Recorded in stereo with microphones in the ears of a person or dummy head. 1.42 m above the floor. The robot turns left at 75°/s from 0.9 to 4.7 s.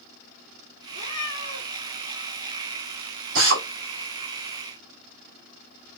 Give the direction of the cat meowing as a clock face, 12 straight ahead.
8 o'clock.